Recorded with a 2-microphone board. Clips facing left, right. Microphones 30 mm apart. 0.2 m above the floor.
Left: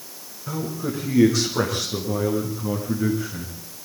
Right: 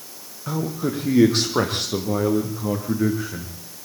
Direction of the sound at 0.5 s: 50° right (ahead or behind).